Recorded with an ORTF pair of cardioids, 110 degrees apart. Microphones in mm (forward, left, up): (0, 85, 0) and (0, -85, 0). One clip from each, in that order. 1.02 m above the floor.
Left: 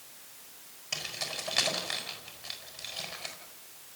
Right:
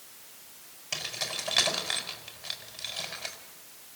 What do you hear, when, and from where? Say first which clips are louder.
0.9 s keys jangling: right 2 dB; 15° right, 5 m